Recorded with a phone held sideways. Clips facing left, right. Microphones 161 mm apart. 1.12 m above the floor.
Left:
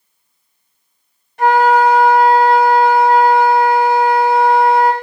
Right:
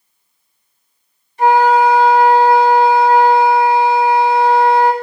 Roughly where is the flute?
Left.